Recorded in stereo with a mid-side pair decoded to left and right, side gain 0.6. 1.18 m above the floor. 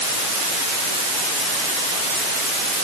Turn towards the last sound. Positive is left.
No sound to turn to.